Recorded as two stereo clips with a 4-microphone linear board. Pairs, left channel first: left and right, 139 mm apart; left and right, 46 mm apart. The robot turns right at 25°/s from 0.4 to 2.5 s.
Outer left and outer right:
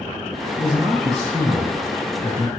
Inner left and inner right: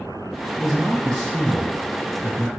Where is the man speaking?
Straight ahead, 2.5 m; by 2.5 s 50° left, 2.5 m.